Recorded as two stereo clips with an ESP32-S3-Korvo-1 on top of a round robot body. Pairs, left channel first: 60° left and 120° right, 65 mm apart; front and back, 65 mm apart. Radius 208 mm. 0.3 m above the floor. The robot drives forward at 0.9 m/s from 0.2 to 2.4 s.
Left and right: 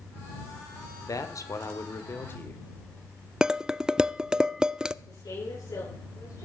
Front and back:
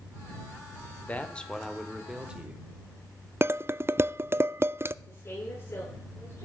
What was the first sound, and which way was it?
A man speaking, 60° left.